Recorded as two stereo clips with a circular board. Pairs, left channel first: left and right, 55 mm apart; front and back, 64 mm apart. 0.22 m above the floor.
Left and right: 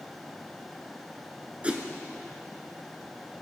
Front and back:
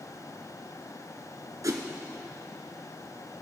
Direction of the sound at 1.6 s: 155° right.